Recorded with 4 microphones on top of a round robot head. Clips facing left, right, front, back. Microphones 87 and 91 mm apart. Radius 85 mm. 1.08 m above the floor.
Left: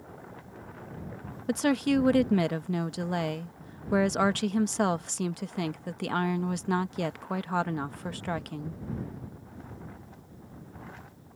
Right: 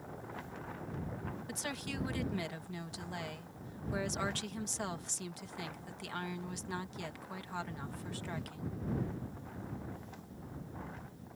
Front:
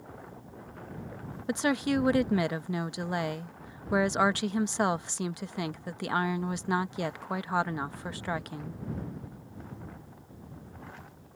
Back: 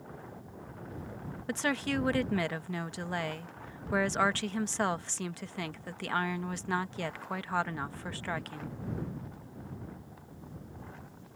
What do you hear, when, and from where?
1.5 s a woman speaking: 75° left